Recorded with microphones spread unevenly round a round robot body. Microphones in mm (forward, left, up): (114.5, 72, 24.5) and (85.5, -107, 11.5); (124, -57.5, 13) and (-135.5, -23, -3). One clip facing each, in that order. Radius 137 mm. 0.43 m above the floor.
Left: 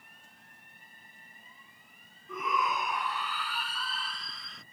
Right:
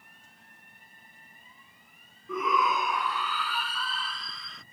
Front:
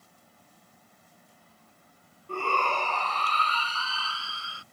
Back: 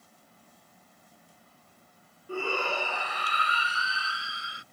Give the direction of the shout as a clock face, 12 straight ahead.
4 o'clock.